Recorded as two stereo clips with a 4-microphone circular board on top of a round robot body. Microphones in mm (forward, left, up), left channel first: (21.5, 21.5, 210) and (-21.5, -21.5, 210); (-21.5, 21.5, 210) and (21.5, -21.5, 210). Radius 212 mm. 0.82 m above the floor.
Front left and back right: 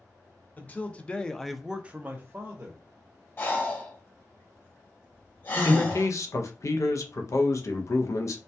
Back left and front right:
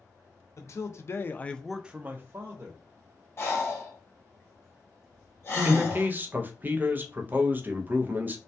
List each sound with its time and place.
0.6 s a man speaking: 105° left, 0.8 m; by 2.8 s 85° right, 0.9 m
3.4 s breathing: 95° left, 1.3 m
5.6 s a man speaking: 10° left, 0.6 m